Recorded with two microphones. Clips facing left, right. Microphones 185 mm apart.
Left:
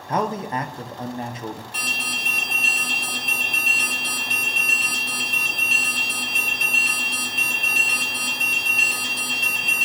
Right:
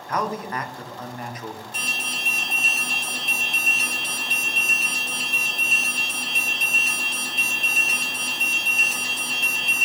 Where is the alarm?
65° left (ahead or behind), 4.5 m.